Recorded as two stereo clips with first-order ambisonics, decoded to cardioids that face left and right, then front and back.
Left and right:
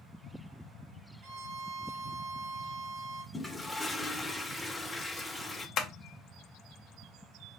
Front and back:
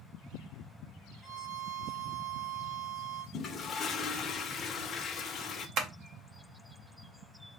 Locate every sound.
1.2 s a violin: 75° right, 1.4 m
3.3 s a toilet flushing: 10° left, 0.6 m
5.8 s tapping: 135° left, 0.6 m